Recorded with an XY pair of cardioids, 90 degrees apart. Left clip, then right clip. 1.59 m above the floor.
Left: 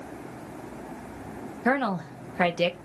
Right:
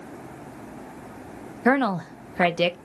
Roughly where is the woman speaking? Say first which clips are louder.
Right 4 dB; ahead right.